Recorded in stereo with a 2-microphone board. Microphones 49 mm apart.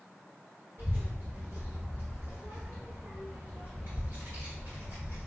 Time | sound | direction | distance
0.8 | a child speaking | 60° right (ahead or behind) | 2 m